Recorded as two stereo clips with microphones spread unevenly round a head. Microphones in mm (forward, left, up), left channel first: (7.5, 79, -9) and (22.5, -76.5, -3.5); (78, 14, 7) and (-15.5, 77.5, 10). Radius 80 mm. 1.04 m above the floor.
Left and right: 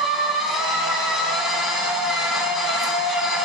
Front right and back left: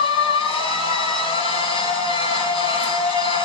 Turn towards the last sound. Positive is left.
turn(degrees=5)